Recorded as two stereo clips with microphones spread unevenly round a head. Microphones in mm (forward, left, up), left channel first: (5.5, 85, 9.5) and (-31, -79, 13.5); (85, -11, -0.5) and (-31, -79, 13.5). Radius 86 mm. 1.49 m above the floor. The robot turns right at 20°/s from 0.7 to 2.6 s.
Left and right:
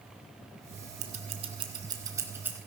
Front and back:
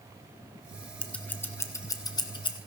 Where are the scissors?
50° right, 0.8 m; by 2.6 s 20° right, 0.8 m.